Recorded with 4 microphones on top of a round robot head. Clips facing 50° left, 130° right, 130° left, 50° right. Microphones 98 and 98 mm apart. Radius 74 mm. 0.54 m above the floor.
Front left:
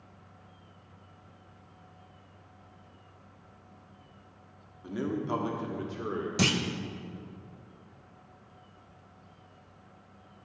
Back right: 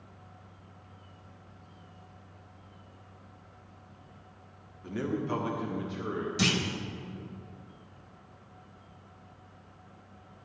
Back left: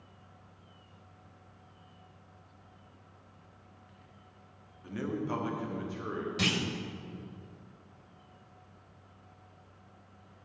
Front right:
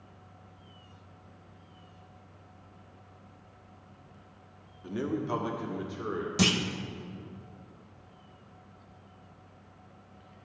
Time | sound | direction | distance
4.8 | a man speaking | 15° right | 1.4 m
6.4 | a clunk | 5° left | 0.7 m